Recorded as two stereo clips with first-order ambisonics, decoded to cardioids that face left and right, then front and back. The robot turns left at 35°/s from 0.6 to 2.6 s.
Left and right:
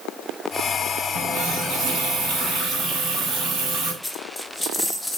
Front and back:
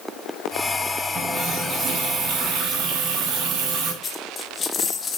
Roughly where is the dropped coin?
Ahead.